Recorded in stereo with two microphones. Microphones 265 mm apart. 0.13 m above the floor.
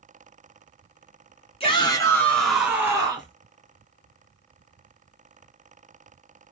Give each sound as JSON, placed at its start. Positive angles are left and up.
{"t": 1.6, "sound": "a shout", "side_deg": 20, "distance_m": 1.4}